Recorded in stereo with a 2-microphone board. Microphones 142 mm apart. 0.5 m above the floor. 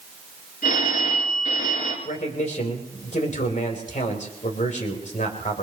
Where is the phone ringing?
75° left (ahead or behind), 4 m.